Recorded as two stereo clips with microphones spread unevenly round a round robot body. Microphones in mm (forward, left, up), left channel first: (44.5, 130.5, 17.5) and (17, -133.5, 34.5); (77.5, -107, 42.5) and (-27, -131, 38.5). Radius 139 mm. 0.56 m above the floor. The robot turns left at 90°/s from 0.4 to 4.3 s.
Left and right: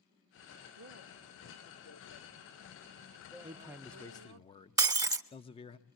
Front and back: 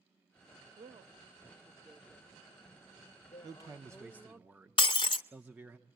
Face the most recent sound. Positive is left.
turn(degrees=-20)